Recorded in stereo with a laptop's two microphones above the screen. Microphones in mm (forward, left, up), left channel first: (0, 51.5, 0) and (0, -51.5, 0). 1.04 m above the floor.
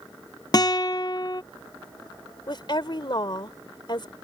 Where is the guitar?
40° left (ahead or behind).